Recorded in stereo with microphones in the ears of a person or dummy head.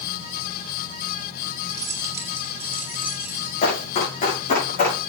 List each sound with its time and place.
1.7 s keys jangling: 20° right (ahead or behind), 4 m; by 3.5 s 5° right (ahead or behind), 6 m
3.6 s running footsteps: 40° left (ahead or behind), 5.5 m; by 5.1 s 45° left (ahead or behind), 6.5 m